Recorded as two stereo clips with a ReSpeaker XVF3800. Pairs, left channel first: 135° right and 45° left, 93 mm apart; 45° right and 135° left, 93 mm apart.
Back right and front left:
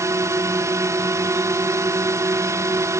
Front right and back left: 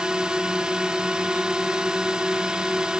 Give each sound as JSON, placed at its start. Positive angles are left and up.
{"t": 0.0, "sound": "a drone", "azimuth_deg": 60}